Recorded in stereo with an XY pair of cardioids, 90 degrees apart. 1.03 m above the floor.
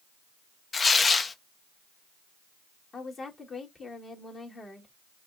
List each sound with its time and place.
0.7 s tearing paper: 40° left, 0.8 m
2.9 s a woman speaking: 45° left, 2.5 m